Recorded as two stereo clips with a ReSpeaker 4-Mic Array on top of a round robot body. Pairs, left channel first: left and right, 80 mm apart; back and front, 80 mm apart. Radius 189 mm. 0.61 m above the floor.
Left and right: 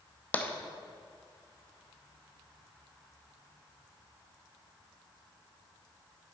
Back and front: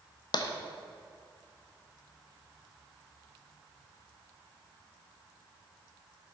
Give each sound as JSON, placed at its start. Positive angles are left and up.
{"t": 0.3, "sound": "tapping", "azimuth_deg": 160, "distance_m": 0.9}